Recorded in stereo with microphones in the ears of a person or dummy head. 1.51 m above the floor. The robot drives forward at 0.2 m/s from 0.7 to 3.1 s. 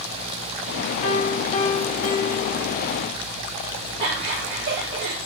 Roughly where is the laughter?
Right.